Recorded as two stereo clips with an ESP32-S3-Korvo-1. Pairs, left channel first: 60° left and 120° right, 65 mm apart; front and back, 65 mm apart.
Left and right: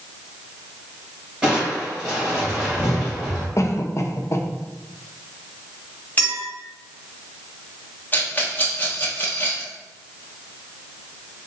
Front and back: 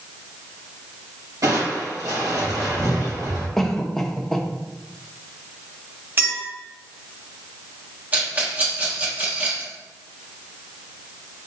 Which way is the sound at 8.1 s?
120° left.